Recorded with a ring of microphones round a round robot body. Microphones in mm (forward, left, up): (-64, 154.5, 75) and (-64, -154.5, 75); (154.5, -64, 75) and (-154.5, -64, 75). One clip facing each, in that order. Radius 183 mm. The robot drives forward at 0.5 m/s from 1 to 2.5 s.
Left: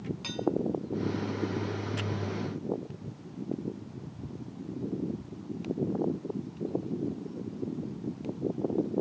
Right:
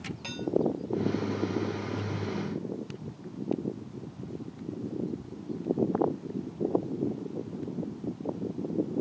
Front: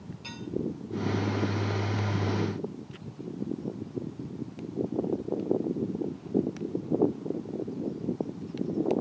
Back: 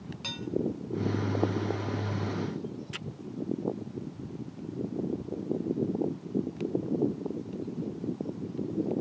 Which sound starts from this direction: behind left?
Dishes clattering, at 0.2 s.